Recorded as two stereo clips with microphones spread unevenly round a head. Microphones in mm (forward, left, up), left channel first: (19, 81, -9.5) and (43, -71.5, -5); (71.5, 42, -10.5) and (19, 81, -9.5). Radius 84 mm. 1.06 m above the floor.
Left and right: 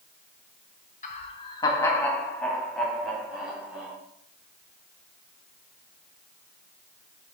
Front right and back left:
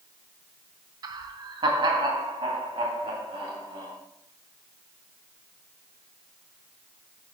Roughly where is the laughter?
Behind left.